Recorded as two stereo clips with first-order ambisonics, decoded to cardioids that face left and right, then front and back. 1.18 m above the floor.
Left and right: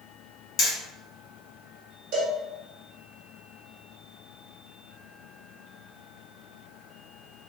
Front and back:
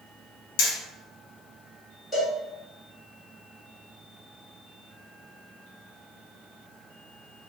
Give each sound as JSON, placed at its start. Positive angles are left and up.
{"t": 0.6, "sound": "hammering", "azimuth_deg": 25, "distance_m": 0.9}
{"t": 2.1, "sound": "a cowbell", "azimuth_deg": -80, "distance_m": 1.4}